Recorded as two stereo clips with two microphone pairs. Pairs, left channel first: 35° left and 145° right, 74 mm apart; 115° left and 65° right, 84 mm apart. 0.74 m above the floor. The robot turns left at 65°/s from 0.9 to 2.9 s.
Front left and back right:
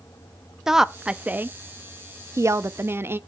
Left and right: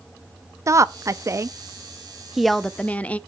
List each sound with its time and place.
0.7 s a woman speaking: 60° right, 0.6 m; by 3.2 s 170° left, 0.6 m